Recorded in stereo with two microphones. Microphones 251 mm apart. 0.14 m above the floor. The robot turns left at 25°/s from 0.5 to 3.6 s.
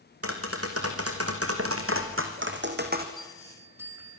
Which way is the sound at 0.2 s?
75° right.